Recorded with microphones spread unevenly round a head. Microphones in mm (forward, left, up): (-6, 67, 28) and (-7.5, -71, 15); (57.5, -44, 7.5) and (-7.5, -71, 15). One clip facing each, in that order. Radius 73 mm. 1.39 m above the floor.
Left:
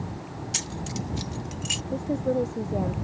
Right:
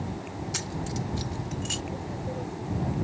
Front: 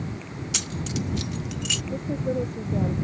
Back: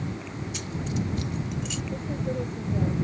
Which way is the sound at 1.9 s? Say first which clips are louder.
Left 9 dB, front 4 dB; 90° left.